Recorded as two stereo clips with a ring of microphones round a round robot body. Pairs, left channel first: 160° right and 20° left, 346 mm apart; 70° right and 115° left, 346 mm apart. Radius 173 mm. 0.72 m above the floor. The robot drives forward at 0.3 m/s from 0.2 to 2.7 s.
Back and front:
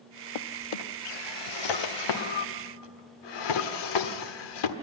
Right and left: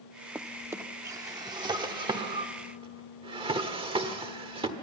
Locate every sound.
0.3 s a drawer: 160° right, 0.6 m; by 4.8 s 170° right, 1.3 m